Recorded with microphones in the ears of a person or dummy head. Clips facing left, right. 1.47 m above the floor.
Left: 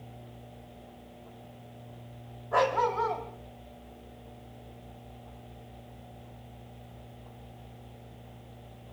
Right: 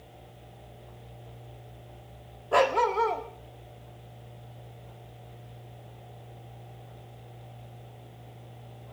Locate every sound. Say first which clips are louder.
2.5 s a dog barking: right 3 dB; 35° right (ahead or behind), 1.3 m